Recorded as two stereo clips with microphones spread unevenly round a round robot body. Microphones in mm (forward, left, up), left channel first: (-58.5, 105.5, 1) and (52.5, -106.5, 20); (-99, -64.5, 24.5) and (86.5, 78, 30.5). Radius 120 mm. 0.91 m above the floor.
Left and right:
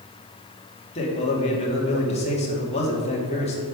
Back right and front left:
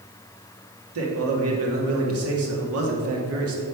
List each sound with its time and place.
0.9 s a man speaking: 55° left, 2.5 m